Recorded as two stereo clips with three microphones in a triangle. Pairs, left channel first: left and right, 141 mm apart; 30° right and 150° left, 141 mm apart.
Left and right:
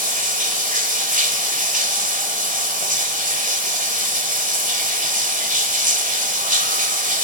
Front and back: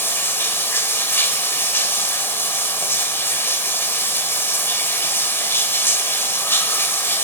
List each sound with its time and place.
0.0 s running water: 105° right, 1.9 m